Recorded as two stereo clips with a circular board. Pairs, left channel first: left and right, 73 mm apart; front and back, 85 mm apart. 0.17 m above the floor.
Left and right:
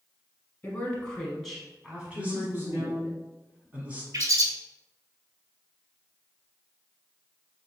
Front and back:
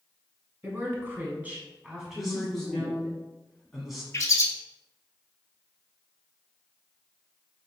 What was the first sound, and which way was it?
A woman speaking, 140° left.